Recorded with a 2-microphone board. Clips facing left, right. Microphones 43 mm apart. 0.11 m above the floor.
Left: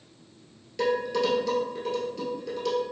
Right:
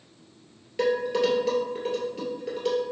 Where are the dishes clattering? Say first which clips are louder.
Right 2 dB; 20° right (ahead or behind), 1.6 m.